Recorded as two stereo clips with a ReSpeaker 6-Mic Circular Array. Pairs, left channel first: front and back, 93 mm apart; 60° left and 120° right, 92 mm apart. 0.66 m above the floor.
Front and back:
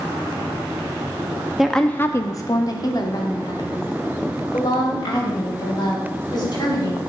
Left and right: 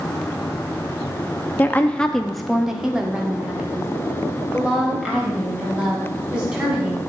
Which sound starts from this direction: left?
A woman speaking, at 1.6 s.